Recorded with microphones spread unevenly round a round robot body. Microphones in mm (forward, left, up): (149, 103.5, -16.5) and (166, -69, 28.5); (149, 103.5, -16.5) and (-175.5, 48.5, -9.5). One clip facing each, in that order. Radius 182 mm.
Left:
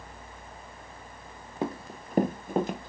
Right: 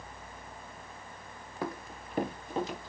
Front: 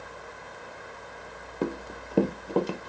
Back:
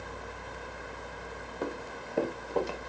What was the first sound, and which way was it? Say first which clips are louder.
Running footsteps: left 5 dB, front 6 dB; 25° left.